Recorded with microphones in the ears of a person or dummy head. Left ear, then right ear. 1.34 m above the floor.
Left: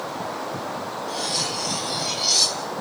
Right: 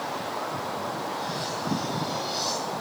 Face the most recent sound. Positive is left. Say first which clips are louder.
# left 5 dB
turn(degrees=55)  # may be behind; listen again after turning